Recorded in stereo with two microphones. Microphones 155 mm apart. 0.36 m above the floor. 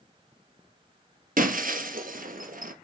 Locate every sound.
1.4 s breaking glass: 65° right (ahead or behind), 1.6 m